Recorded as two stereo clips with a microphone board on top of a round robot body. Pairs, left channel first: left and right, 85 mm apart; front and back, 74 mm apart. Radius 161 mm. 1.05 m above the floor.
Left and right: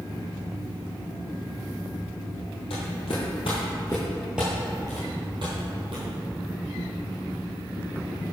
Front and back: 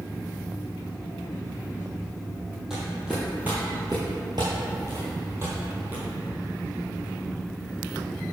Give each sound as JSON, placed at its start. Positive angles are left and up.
{"t": 2.7, "sound": "footsteps", "azimuth_deg": 95, "distance_m": 1.7}